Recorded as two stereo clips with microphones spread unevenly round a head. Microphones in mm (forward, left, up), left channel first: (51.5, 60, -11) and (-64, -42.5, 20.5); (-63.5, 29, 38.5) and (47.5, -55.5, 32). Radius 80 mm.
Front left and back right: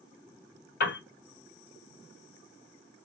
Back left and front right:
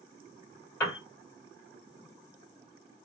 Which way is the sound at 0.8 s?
65° left.